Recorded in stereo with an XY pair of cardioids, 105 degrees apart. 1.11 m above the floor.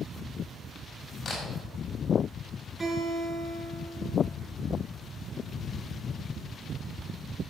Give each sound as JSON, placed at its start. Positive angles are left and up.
{"t": 1.2, "sound": "a camera shutter", "azimuth_deg": 35, "distance_m": 6.0}
{"t": 2.8, "sound": "a guitar", "azimuth_deg": -20, "distance_m": 7.5}